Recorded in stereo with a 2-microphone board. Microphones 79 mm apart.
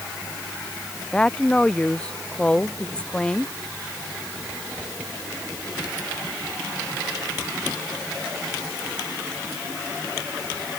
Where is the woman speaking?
15° left (ahead or behind).